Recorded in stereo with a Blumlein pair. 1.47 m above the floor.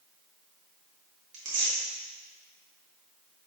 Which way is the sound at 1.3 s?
45° right.